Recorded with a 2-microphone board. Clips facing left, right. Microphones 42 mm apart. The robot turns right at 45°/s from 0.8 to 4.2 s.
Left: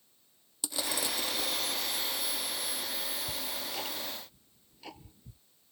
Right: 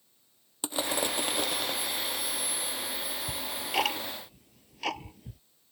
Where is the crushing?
145° right; by 1.8 s 100° right.